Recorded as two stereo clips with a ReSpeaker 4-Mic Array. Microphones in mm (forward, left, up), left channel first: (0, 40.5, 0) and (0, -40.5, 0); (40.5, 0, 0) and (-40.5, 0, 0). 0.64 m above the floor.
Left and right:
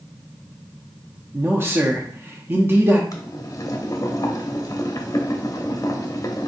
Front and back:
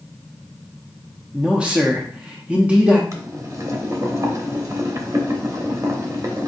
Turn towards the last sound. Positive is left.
turn(degrees=135)